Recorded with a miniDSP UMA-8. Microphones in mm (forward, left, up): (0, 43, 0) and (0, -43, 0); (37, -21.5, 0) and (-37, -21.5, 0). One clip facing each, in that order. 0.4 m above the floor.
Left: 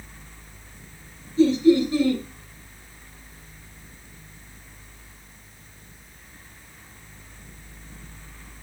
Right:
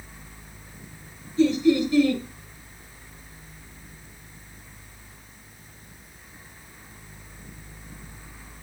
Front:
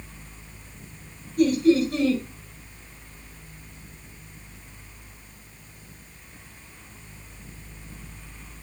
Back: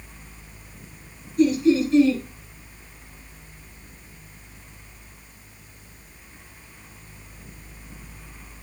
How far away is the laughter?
About 4 m.